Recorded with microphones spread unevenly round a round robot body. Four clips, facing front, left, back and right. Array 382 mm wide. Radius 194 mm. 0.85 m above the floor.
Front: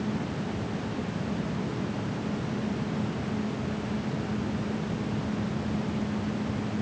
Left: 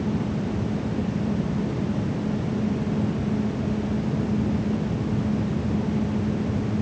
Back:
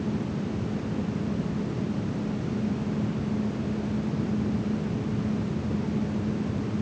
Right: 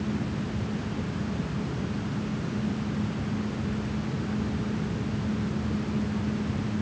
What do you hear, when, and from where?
Only background noise.